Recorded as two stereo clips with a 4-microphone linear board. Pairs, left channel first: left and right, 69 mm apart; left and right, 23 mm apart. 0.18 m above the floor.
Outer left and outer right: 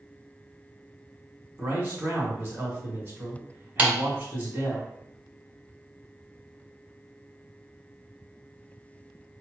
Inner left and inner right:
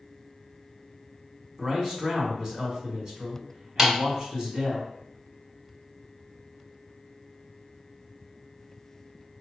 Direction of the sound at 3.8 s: 25° right (ahead or behind).